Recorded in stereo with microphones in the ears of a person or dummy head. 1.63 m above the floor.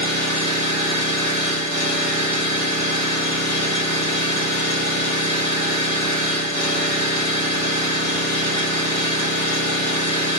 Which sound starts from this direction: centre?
An engine running, at 0.0 s.